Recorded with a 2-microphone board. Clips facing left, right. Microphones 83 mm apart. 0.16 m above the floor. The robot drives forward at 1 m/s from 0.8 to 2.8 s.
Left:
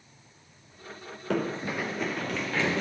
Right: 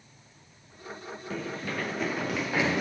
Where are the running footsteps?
70° left (ahead or behind), 0.7 m; by 2.8 s 15° right (ahead or behind), 3.5 m.